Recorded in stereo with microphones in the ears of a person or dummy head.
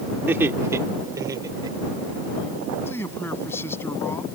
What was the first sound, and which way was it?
Laughter, 5° right (ahead or behind).